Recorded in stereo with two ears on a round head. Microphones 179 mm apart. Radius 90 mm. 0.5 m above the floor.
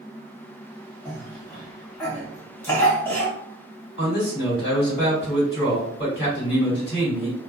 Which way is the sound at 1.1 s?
10° left (ahead or behind).